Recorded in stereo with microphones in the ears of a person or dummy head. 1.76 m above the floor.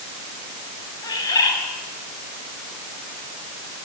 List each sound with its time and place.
1.0 s a bird: 20° left (ahead or behind), 6 m